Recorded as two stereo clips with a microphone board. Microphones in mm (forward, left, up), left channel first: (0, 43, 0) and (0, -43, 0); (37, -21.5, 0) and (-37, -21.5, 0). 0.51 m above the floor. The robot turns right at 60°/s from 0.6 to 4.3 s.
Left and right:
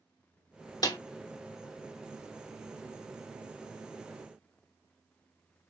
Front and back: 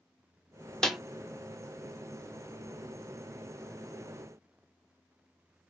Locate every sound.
0.8 s a snare drum: 80° left, 0.8 m; by 1.0 s 90° left, 0.8 m